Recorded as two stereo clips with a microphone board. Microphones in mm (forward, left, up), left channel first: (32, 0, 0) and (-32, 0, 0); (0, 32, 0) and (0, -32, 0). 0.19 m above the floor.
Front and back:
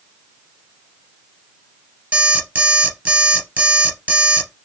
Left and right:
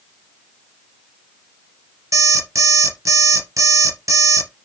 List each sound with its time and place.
2.1 s an alarm clock: 110° right, 2.5 m